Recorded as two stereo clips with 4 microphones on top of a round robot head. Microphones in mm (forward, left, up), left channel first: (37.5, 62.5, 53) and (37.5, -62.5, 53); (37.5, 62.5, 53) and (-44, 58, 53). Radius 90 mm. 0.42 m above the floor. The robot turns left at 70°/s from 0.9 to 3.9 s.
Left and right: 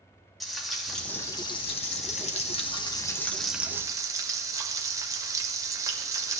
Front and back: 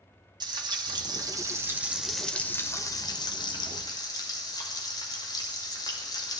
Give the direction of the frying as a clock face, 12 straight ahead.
6 o'clock.